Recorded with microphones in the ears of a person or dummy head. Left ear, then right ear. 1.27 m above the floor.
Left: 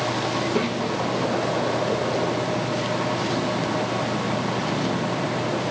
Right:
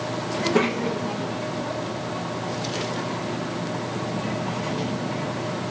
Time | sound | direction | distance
0.3 | a child speaking | 10° right (ahead or behind) | 0.5 m